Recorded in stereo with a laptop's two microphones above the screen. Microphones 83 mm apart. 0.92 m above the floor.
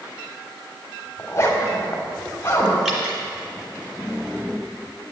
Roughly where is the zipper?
Left.